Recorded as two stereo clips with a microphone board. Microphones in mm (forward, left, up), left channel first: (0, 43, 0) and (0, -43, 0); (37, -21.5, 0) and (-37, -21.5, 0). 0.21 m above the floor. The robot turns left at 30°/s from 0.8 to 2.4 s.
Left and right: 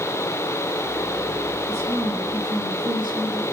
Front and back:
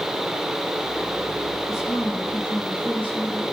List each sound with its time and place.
1.7 s a woman speaking: 35° right, 5 m; by 3.4 s 55° right, 5 m